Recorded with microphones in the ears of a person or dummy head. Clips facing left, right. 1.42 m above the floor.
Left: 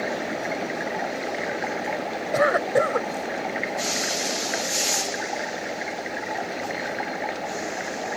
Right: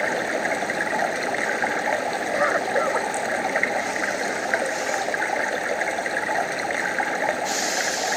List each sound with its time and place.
0.0 s running water: 70° right (ahead or behind)
2.3 s a cough: 30° left (ahead or behind)